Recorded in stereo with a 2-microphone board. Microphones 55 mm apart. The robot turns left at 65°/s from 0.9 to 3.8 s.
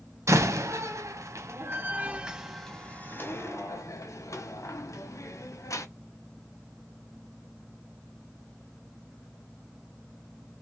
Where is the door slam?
60° right (ahead or behind), 0.9 m; by 5.9 s 65° left (ahead or behind), 0.9 m.